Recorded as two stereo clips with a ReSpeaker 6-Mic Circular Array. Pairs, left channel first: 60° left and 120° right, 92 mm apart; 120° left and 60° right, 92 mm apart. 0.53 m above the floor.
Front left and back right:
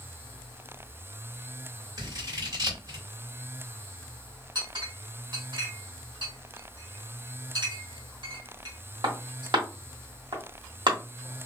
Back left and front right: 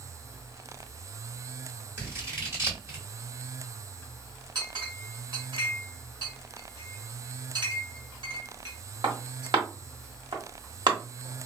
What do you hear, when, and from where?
2.0 s scissors: 105° right, 1.6 m
4.5 s a clink: 90° right, 1.1 m